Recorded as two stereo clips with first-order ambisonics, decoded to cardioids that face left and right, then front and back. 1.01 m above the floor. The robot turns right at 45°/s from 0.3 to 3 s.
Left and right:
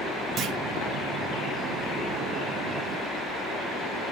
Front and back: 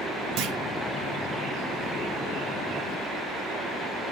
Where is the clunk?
145° right, 1.3 m; by 0.6 s 135° right, 1.3 m.